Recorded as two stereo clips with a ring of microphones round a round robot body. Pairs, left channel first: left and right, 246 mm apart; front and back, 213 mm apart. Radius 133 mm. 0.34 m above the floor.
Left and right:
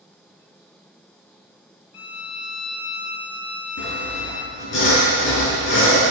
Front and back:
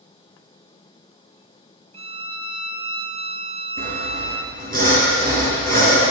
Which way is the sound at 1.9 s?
115° left.